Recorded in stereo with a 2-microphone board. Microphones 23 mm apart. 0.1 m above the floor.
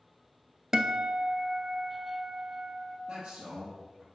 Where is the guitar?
30° right (ahead or behind), 0.7 m.